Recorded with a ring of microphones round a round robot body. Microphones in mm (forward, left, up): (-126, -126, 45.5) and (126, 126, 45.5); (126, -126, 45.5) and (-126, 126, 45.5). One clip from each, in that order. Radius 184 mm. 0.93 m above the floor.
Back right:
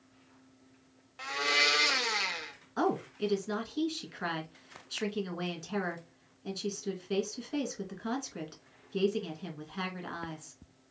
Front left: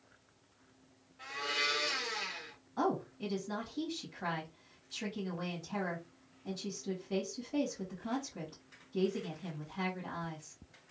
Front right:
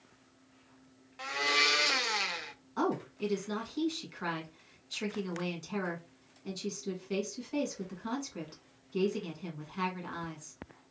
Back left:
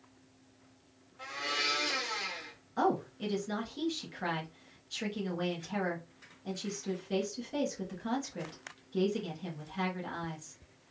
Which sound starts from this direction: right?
A blender, at 1.2 s.